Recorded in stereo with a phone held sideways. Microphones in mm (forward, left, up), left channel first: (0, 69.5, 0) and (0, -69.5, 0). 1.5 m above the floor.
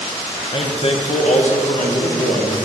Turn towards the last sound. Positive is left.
turn(degrees=80)